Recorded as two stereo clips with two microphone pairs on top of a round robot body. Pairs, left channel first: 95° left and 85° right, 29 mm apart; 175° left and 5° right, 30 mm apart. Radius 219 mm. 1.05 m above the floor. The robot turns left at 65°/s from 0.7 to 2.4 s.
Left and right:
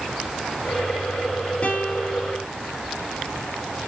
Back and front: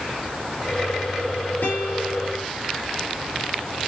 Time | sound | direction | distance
1.6 | a guitar | 140° left | 3.5 m